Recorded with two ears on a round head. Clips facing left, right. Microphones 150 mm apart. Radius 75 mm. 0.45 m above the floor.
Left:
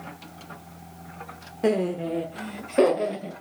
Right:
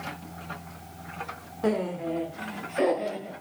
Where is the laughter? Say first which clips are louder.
Left 3 dB; 25° left (ahead or behind), 1.1 m; by 3.3 s 65° left (ahead or behind), 2 m.